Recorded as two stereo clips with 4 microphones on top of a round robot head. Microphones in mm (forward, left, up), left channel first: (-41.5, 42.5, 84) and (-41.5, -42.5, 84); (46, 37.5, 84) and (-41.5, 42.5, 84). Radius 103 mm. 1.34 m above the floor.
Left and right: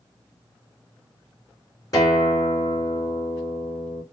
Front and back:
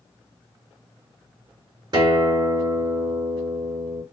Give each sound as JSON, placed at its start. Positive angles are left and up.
{"t": 1.9, "sound": "a guitar", "azimuth_deg": 140, "distance_m": 4.0}